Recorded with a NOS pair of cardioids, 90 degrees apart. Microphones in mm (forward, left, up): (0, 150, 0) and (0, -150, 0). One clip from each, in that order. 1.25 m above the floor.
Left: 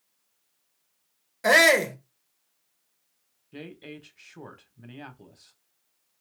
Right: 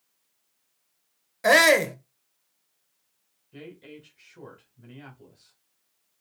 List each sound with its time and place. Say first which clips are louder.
1.4 s a shout: even; 5° right, 0.8 m
3.5 s a woman speaking: left 2 dB; 35° left, 1.3 m